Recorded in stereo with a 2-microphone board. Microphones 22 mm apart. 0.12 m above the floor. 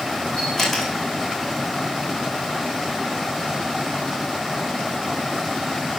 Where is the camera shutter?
25° left (ahead or behind), 4 m.